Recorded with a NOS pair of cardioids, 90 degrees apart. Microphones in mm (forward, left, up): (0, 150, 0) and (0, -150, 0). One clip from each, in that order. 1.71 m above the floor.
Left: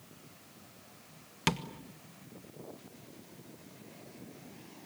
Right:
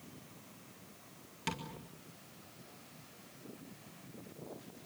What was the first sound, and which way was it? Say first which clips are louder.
Tapping: left 8 dB; 60° left.